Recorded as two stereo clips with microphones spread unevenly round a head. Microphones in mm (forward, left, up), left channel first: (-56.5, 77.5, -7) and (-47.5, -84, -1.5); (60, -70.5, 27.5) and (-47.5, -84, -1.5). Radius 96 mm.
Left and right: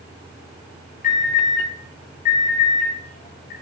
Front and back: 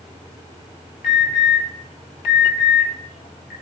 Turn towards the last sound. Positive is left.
turn(degrees=35)